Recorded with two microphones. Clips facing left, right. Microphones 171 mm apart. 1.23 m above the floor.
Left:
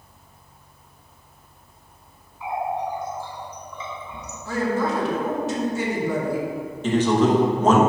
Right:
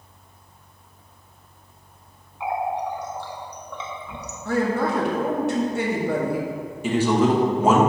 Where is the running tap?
80° right, 0.8 m.